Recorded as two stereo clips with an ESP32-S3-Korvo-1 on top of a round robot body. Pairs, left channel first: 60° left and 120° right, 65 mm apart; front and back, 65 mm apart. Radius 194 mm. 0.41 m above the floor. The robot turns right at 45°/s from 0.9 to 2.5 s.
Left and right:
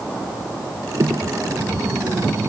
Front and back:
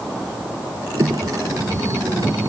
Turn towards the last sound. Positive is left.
No sound to turn to.